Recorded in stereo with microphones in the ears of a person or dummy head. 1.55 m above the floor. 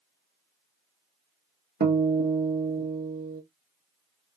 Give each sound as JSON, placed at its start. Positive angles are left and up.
{"t": 1.8, "sound": "a guitar", "side_deg": -40, "distance_m": 0.8}